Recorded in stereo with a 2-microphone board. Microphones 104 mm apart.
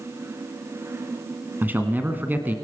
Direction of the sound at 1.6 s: 20° right (ahead or behind).